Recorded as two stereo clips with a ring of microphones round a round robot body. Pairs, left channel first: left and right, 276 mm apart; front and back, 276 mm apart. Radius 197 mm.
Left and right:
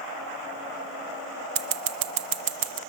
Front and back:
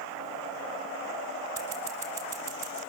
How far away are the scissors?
About 0.6 m.